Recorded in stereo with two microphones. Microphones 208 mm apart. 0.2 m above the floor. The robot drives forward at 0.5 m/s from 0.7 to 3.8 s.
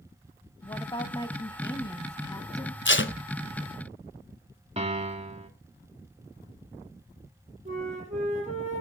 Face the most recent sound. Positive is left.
turn(degrees=-35)  # may be behind; listen again after turning